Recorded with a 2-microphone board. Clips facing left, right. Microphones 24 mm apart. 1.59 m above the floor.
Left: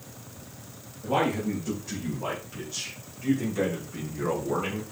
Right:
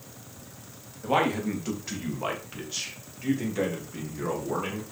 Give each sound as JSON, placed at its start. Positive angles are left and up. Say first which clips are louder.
{"t": 1.0, "sound": "a man speaking", "louder": "right 1 dB", "side_deg": -55, "distance_m": 2.5}